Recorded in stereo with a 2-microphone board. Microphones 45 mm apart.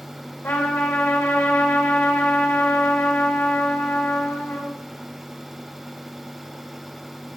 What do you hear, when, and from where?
0.4 s a trumpet: 55° left (ahead or behind), 2 m